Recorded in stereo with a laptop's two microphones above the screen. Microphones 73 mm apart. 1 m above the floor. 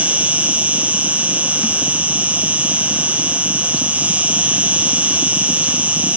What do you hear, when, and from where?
0.0 s an insect: 20° right (ahead or behind), 0.7 m